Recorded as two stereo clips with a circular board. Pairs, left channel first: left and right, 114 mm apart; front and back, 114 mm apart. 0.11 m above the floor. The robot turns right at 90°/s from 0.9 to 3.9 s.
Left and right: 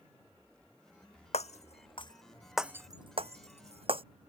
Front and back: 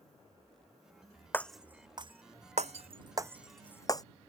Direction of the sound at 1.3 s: 70° left.